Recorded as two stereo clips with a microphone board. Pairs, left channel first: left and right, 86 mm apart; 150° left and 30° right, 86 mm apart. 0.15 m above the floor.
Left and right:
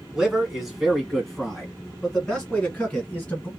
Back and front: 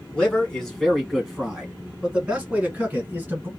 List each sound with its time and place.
0.1 s a man speaking: 160° right, 1.4 m; by 3.5 s 25° left, 1.8 m